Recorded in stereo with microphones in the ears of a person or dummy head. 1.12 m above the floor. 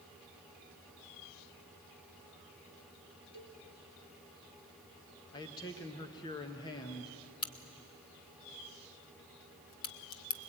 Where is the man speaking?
25° left (ahead or behind), 1.2 m.